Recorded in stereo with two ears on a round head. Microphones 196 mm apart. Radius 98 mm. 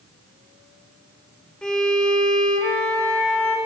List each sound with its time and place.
1.6 s a violin: 5° left (ahead or behind), 1.2 m